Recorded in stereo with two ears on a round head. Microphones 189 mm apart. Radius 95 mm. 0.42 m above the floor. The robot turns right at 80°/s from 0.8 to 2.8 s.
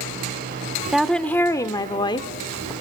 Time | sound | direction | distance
0.9 | a woman speaking | centre (ahead or behind) | 0.7 m